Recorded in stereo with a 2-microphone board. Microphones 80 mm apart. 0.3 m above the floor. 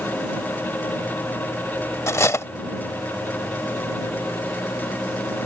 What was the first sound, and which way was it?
Cutlery clinking, 35° left (ahead or behind).